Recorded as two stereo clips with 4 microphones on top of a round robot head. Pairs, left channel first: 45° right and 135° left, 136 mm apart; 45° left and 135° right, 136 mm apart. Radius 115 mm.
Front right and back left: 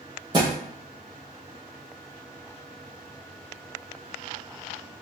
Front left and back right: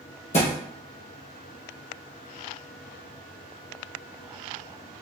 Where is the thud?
75° left, 1.2 m.